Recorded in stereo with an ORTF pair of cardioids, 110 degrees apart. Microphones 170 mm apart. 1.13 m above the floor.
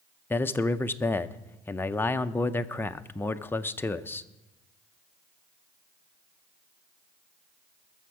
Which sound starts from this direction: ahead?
A man speaking, at 0.3 s.